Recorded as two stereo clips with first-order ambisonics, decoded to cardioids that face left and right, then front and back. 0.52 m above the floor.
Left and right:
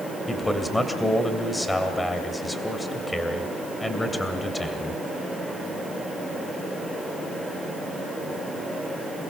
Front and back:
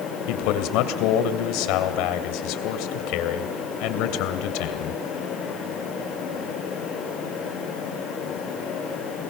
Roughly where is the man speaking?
Ahead.